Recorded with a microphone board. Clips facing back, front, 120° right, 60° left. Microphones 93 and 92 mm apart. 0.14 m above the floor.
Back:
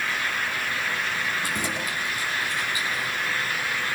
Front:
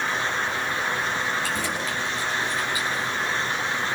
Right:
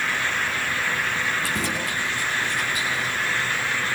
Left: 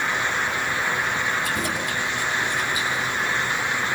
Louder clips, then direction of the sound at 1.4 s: Front 2 dB, left 1 dB; 105° right.